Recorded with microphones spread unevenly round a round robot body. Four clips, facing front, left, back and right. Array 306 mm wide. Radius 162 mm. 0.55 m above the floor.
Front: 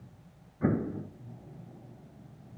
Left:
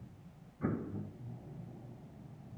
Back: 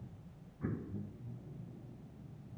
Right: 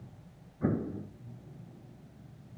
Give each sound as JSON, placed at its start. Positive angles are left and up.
{"t": 0.6, "sound": "an explosion", "azimuth_deg": -15}